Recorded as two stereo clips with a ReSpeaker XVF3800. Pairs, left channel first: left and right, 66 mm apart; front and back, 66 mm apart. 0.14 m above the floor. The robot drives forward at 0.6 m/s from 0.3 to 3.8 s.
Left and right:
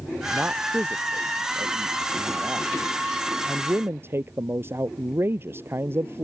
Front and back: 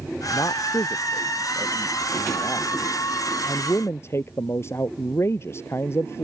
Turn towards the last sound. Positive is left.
turn(degrees=-45)